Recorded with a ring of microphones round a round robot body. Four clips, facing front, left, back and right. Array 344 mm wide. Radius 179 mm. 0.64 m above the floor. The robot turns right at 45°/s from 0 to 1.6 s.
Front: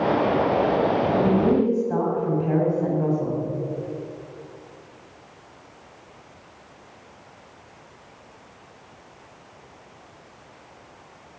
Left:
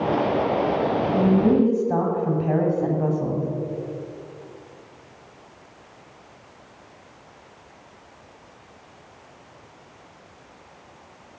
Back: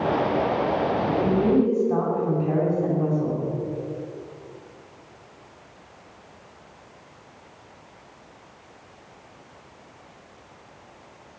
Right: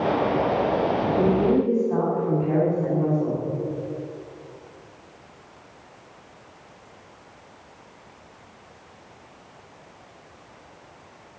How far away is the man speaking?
About 6 m.